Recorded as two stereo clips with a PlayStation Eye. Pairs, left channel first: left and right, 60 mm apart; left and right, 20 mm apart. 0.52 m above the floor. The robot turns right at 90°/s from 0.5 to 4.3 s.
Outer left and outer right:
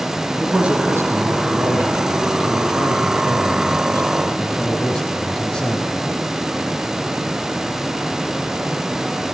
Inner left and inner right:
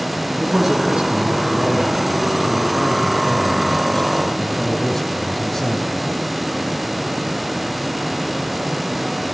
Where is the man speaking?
175° right, 4.5 m; by 6.1 s 165° left, 4.5 m.